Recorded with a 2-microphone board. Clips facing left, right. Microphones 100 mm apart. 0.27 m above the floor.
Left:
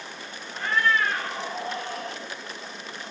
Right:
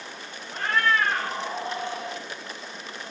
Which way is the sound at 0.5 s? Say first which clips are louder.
Even; 70° right (ahead or behind).